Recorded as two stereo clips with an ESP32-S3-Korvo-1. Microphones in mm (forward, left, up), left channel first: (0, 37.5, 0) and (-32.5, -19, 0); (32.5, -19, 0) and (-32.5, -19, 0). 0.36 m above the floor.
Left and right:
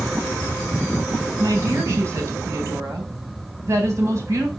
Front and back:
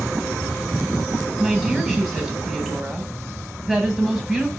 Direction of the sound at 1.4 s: 90° right.